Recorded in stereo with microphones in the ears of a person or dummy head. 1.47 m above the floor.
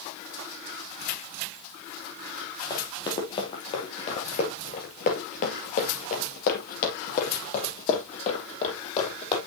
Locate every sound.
2.7 s running footsteps: 20° left (ahead or behind), 3 m; by 9.4 s 40° left (ahead or behind), 4 m